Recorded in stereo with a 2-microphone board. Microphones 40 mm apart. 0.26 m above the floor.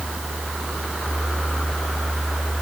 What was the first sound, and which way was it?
Only background noise.